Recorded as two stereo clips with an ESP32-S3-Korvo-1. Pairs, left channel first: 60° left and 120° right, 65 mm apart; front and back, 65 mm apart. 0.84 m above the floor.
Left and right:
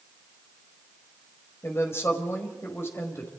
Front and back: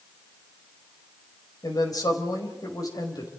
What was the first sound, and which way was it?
A woman speaking, 10° left.